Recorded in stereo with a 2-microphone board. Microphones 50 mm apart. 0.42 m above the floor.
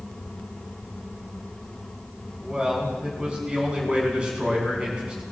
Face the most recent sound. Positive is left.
turn(degrees=-20)  # may be behind; listen again after turning